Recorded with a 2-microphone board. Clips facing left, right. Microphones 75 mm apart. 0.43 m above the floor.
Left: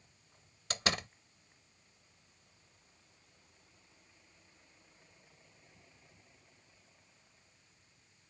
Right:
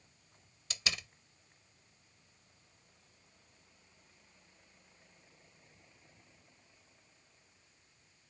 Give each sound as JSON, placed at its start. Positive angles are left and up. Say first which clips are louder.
{"t": 0.7, "sound": "a door slam", "louder": "left 6 dB", "side_deg": 50}